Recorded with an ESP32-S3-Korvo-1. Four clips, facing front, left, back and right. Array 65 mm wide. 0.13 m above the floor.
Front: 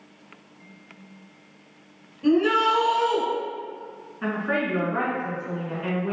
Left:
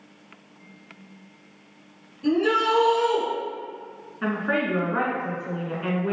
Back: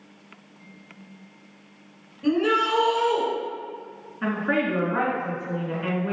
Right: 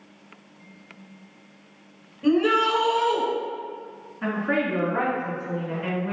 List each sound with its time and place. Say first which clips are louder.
2.2 s a shout: right 1 dB, front 2 dB; 90° right, 1.3 m
4.2 s a woman speaking: even, back 1 dB; 125° left, 1.6 m